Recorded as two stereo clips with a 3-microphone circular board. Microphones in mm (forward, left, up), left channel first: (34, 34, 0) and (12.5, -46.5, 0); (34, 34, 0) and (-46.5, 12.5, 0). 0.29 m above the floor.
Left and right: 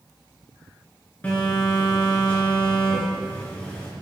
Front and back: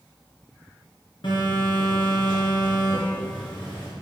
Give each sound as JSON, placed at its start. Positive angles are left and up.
{"t": 1.2, "sound": "a phone buzzing", "azimuth_deg": 0, "distance_m": 2.0}